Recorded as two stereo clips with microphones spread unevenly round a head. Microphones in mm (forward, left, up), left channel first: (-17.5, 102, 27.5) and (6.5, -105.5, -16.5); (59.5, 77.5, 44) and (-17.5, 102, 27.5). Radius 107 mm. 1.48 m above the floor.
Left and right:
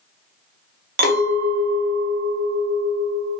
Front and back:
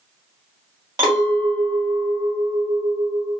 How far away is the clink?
About 0.7 m.